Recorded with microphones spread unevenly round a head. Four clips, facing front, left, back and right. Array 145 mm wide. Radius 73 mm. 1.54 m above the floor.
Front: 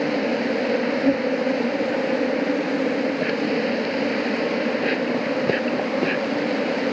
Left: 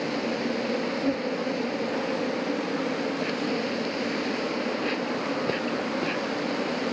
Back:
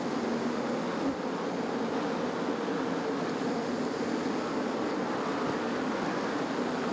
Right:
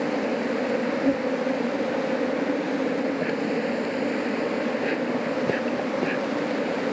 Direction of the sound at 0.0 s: 15° right.